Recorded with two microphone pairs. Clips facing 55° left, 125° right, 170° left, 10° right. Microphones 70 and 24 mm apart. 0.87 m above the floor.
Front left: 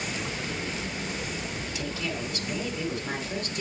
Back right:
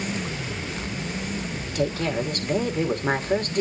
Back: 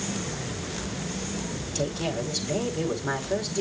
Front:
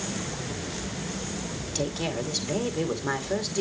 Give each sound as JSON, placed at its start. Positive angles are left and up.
{"t": 1.7, "sound": "a woman speaking", "azimuth_deg": -90, "distance_m": 2.0}